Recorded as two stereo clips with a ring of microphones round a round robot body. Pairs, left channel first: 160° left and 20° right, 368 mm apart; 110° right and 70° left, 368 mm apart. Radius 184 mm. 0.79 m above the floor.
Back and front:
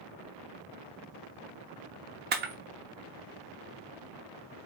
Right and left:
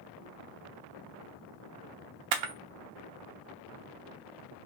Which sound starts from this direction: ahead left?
A camera shutter, at 2.3 s.